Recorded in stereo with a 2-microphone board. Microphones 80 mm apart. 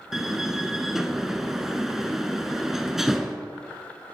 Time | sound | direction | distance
0.1 | a door slam | 5° right (ahead or behind) | 0.9 m